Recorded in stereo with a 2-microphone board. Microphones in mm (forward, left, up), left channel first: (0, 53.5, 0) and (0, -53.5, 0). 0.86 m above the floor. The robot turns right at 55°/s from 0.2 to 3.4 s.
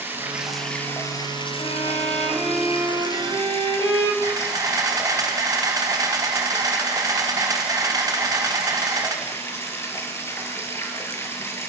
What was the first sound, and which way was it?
Running water, 20° right.